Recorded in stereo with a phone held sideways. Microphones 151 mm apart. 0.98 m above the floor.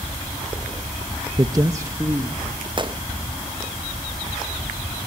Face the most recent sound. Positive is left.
turn(degrees=-35)  # may be behind; listen again after turning